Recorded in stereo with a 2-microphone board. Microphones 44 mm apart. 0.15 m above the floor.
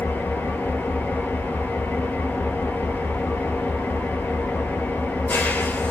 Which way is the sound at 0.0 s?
50° left (ahead or behind).